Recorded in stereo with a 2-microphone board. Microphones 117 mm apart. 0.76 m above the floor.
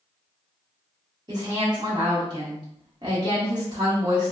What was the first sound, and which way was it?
A woman speaking, 35° right (ahead or behind).